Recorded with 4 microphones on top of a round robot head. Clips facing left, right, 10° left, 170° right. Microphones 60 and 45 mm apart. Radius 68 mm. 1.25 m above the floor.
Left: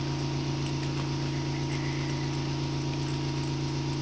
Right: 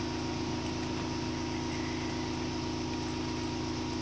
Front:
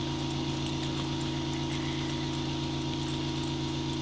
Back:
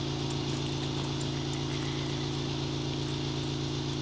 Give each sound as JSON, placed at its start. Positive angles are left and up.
{"t": 0.0, "sound": "an engine running", "azimuth_deg": 90, "distance_m": 7.0}